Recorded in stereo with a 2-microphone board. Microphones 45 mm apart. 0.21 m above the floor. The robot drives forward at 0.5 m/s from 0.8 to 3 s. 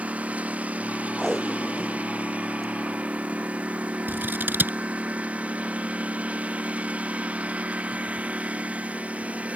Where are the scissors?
45° right (ahead or behind).